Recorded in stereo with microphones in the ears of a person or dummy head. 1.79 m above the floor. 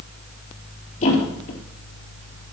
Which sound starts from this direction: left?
A thud, at 1.0 s.